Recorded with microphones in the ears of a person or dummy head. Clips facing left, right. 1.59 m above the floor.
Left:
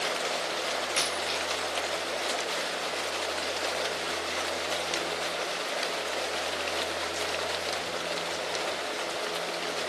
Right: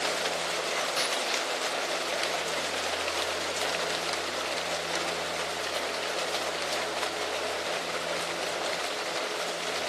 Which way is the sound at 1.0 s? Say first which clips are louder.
Right 1 dB; 25° left (ahead or behind).